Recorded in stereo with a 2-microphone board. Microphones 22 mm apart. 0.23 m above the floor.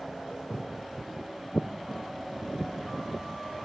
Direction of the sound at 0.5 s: 80° left.